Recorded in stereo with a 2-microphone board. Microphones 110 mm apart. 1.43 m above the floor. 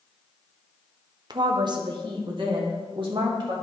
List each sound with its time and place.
1.3 s a woman speaking: 45° right (ahead or behind), 0.9 m; by 3.5 s 50° right (ahead or behind), 2.5 m